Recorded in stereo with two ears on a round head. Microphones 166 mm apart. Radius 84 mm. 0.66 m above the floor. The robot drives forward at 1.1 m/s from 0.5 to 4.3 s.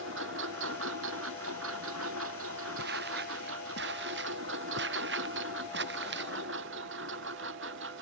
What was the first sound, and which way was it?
A lawn mower, 70° right (ahead or behind).